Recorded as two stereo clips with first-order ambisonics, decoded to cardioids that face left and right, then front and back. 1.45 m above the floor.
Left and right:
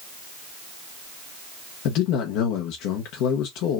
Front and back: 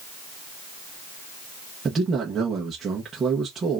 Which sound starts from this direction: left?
A man speaking, at 1.9 s.